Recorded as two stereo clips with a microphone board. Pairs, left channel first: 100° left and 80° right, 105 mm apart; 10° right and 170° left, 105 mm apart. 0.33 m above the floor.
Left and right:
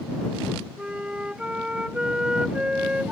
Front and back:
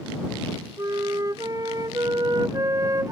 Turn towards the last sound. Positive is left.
turn(degrees=-155)